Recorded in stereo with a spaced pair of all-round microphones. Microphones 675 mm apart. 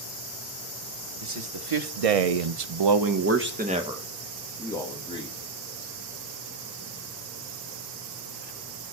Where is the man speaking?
45° right (ahead or behind), 1.1 m; by 5.5 s 10° left (ahead or behind), 1.8 m.